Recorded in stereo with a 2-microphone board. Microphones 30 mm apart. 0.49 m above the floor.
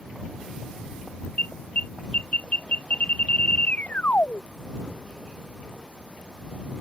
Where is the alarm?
60° left (ahead or behind).